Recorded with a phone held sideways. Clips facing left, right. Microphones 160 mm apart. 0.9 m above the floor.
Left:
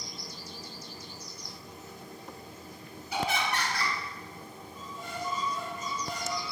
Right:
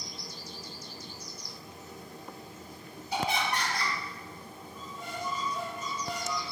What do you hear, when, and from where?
3.1 s laughter: 35° right (ahead or behind), 2.0 m
4.7 s a squeak: 55° right (ahead or behind), 1.7 m